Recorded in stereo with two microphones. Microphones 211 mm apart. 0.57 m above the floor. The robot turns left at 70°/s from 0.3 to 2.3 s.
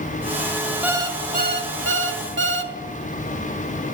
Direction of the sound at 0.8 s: 5° right.